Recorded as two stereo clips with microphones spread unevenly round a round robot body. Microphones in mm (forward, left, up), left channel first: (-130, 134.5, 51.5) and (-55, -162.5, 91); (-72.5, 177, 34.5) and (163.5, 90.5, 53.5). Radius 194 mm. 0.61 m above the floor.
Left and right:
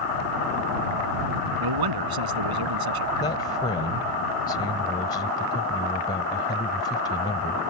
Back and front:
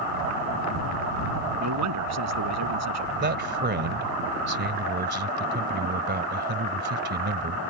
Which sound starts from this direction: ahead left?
A man speaking, at 3.2 s.